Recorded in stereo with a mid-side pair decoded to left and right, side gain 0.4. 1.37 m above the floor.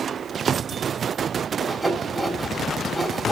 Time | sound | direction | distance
1.6 | sawing | 35° right | 3.5 m